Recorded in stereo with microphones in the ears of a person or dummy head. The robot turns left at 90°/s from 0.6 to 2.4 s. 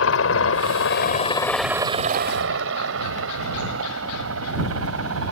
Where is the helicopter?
70° left (ahead or behind); by 5.3 s 80° right.